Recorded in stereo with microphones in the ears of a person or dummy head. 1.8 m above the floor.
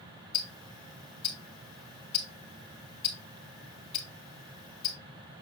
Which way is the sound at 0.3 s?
10° left (ahead or behind).